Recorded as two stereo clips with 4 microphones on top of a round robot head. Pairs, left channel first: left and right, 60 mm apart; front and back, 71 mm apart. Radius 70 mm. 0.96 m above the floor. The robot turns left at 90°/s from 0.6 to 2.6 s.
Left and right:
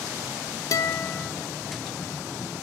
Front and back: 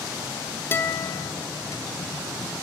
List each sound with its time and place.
0.7 s a guitar: 60° left, 1.4 m; by 1.3 s 5° left, 1.4 m